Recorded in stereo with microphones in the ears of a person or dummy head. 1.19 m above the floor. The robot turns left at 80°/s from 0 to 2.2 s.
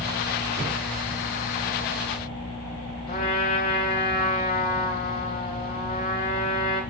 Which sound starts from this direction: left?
A trumpet, at 3.1 s.